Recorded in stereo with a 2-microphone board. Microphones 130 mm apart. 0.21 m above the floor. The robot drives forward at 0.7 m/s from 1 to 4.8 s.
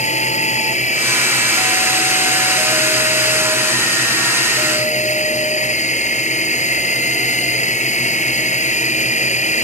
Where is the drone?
60° left (ahead or behind); by 9.6 s 65° left (ahead or behind).